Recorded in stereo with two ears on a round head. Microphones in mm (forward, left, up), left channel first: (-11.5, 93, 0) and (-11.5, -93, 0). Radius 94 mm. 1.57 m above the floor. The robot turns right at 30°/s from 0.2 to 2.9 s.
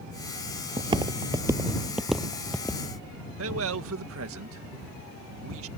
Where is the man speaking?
70° right (ahead or behind).